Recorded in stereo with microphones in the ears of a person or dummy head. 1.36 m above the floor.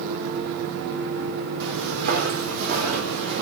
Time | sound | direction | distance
1.6 | footsteps | 60° right (ahead or behind) | 3.5 m